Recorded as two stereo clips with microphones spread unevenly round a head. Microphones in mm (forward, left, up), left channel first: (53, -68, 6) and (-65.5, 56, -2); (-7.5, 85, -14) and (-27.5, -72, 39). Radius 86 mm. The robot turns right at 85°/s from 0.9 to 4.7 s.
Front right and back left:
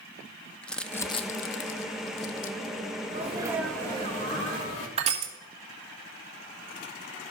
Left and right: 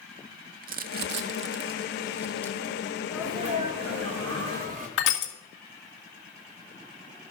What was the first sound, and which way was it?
Crumpling, 130° right.